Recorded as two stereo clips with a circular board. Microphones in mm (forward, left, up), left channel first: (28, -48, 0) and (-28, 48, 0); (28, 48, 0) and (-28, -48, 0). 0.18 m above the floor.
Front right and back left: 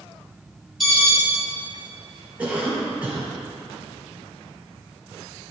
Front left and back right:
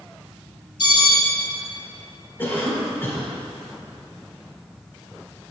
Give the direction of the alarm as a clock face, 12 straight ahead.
11 o'clock.